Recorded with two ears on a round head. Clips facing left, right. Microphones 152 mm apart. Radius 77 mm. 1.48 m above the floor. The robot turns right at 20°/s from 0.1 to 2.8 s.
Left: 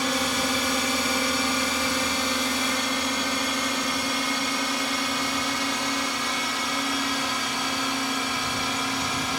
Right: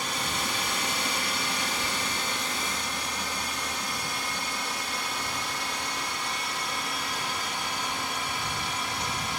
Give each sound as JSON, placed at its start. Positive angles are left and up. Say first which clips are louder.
{"t": 0.0, "sound": "a drone", "louder": "left 7 dB", "side_deg": 55}